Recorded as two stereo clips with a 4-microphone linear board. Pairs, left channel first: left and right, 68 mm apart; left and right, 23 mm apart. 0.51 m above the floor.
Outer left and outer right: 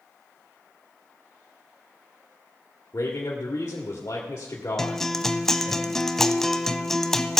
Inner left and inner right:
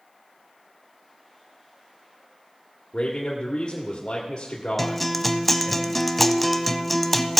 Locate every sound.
2.9 s a man speaking: 60° left (ahead or behind), 1.4 m
4.8 s a guitar: 5° left (ahead or behind), 0.5 m